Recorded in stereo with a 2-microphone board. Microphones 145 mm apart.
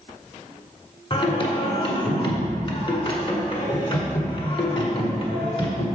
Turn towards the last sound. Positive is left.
turn(degrees=35)  # may be behind; listen again after turning